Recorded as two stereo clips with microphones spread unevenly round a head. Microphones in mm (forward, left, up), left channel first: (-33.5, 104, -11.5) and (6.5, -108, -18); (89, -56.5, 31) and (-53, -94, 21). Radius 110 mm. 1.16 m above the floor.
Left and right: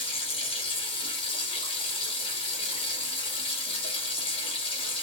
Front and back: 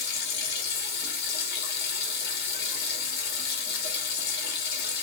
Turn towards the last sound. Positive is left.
turn(degrees=35)